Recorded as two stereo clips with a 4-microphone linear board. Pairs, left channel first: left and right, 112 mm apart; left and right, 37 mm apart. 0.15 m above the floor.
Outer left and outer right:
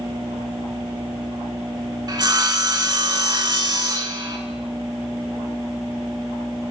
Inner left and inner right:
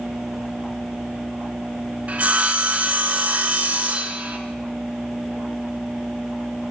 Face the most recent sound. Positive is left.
turn(degrees=-40)  # may be behind; listen again after turning